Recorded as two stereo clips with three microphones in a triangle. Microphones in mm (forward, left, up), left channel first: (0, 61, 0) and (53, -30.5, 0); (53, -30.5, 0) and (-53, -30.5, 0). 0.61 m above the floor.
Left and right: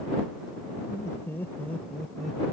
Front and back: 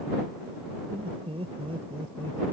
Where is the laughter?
175° left; by 2.4 s 150° right.